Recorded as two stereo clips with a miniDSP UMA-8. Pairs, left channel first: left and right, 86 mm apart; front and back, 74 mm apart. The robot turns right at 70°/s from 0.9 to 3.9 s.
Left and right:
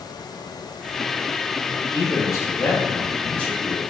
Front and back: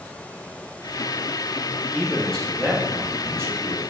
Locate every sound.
1.9 s a man speaking: 50° left, 1.3 m; by 3.8 s 175° right, 1.3 m